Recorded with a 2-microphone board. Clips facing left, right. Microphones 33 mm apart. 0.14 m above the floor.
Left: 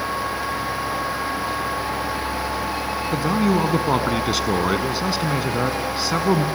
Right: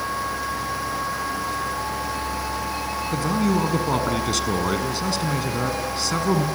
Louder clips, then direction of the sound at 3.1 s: Left 2 dB; 15° left (ahead or behind).